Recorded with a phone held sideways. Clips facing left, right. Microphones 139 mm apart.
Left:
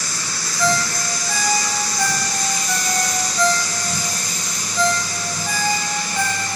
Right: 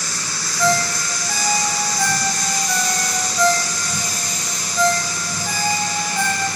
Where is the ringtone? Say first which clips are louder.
Right 2 dB; centre (ahead or behind), 0.6 m.